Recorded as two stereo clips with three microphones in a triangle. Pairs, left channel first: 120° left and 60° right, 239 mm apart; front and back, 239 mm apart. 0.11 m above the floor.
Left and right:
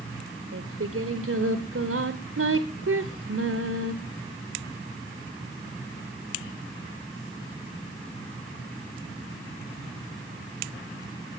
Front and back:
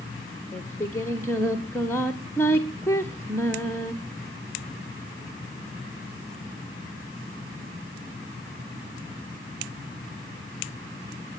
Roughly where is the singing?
Right.